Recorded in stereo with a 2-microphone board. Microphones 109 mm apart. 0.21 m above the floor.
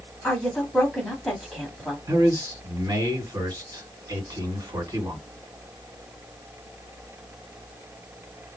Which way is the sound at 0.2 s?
5° left (ahead or behind).